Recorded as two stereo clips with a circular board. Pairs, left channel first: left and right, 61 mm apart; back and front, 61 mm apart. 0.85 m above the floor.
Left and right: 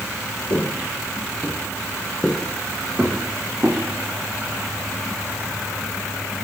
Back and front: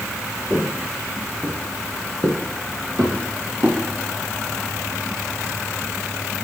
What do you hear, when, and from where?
0.5 s footsteps: 75° left, 1.8 m; by 3.8 s 20° right, 4.5 m